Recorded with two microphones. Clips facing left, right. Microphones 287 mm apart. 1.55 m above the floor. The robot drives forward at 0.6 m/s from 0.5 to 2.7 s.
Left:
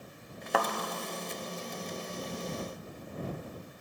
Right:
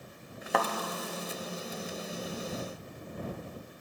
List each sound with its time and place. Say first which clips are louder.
0.5 s a thud: even; centre (ahead or behind), 1.0 m